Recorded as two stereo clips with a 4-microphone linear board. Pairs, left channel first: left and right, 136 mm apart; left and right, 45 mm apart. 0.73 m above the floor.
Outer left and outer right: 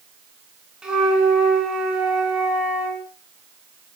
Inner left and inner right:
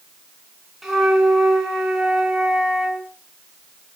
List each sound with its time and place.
0.8 s a flute: 5° right (ahead or behind), 6 m